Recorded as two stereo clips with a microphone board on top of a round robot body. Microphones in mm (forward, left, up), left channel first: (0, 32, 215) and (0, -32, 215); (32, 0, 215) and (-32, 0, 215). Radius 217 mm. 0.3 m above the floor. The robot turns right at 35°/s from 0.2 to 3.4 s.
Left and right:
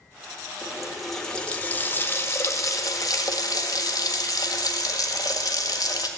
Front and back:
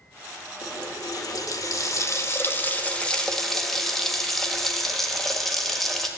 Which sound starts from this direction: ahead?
A running tap, at 0.6 s.